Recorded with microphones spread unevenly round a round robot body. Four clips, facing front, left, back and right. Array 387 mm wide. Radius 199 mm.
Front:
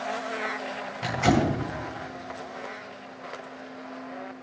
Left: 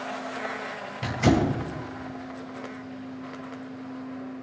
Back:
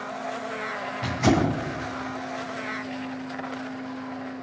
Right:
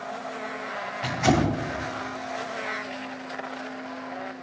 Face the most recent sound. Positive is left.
turn(degrees=100)